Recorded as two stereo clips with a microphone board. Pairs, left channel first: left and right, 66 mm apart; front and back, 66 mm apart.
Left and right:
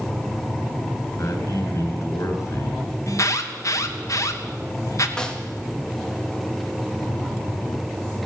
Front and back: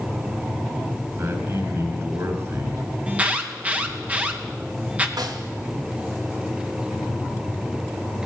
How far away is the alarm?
About 2.0 m.